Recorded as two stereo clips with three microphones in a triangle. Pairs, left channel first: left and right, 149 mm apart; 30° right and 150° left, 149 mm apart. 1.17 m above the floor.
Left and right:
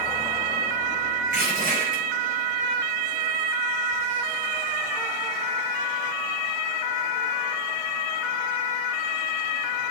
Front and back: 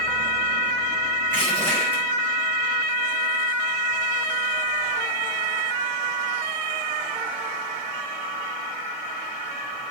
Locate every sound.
1.3 s crushing: 105° right, 4.5 m